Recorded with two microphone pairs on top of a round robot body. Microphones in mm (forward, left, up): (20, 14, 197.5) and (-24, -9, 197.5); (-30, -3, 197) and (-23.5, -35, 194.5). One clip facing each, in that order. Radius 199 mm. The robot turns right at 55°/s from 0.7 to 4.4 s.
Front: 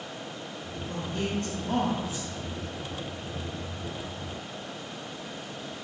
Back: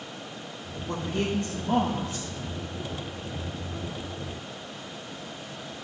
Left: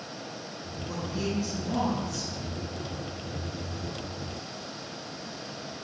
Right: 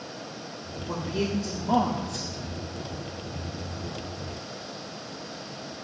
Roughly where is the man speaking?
Behind right.